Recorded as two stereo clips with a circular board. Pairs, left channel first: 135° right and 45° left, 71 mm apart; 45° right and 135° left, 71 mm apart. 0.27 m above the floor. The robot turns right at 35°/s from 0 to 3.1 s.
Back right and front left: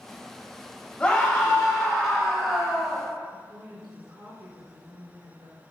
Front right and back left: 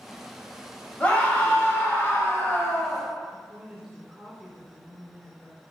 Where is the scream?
85° right, 1.5 m; by 3.0 s 10° right, 1.5 m.